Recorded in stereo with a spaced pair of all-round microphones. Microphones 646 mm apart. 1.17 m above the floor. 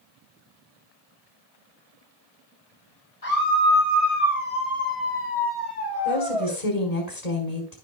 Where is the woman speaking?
80° left, 5.5 m.